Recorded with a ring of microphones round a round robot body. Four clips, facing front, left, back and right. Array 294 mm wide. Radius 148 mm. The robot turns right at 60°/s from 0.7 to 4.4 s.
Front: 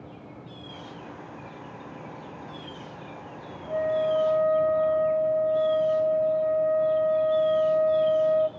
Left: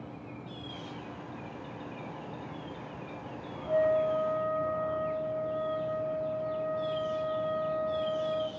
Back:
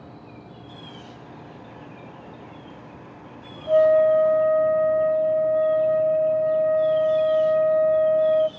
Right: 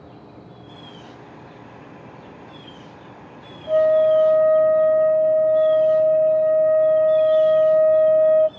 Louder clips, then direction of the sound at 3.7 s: Right 11 dB, back 9 dB; 145° right.